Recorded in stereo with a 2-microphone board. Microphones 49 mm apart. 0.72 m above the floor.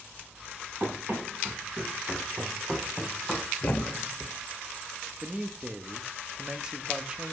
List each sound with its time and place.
0.8 s running footsteps: 50° right (ahead or behind), 4.5 m; by 3.5 s 15° left (ahead or behind), 2.5 m
3.6 s a thud: 45° left (ahead or behind), 0.8 m
5.2 s a man speaking: 15° right (ahead or behind), 0.8 m